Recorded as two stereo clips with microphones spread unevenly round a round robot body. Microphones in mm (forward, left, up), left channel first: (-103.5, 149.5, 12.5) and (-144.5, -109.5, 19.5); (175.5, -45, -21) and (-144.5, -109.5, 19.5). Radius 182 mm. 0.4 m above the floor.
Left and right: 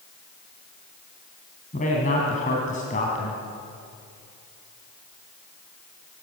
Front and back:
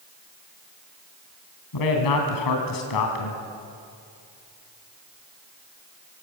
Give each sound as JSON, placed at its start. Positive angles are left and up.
{"t": 1.7, "sound": "a man speaking", "azimuth_deg": 15, "distance_m": 2.5}